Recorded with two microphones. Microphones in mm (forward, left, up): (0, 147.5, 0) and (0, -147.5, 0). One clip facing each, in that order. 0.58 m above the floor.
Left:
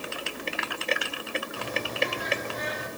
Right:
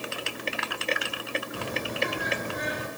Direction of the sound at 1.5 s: 65° right (ahead or behind).